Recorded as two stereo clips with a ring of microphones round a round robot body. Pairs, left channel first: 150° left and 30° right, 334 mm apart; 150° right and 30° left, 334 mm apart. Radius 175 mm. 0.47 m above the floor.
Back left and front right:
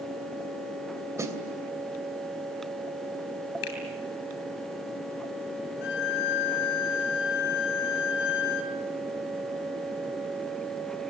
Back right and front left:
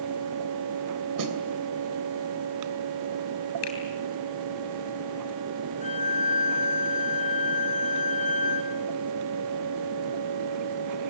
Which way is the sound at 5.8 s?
140° left.